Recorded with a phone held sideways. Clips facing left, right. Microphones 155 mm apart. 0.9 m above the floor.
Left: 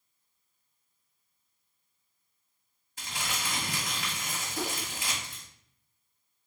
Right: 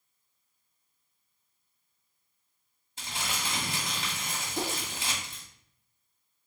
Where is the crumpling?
25° right (ahead or behind), 1.8 m.